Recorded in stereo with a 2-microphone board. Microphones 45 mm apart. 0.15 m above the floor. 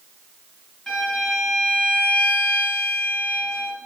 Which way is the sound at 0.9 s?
5° left (ahead or behind).